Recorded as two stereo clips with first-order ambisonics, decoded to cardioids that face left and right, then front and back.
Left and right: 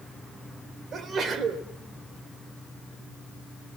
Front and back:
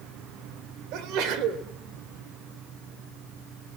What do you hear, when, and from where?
0.9 s a sneeze: 150° right, 3 m